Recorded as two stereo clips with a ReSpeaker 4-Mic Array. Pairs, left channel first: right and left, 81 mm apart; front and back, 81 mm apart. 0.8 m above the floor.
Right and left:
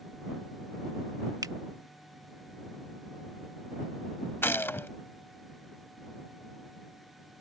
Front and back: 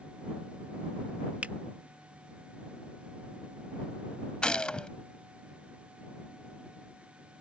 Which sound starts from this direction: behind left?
A finger snap, at 1.4 s.